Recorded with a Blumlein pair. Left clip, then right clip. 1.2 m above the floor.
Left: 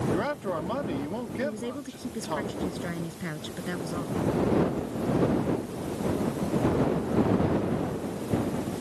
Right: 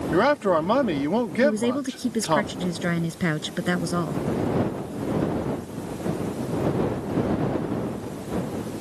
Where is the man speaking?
30° right.